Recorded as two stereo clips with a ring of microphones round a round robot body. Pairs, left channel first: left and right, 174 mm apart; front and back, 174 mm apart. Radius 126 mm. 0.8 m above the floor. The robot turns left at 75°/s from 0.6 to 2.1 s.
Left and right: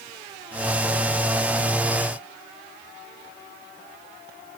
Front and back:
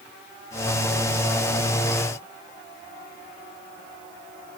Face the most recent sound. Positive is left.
No sound to turn to.